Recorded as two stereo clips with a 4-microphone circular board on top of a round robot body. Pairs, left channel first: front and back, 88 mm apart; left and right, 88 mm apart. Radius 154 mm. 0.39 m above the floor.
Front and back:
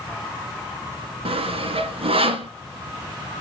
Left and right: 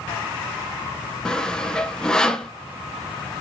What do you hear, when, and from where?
1.2 s sawing: 170° left, 1.7 m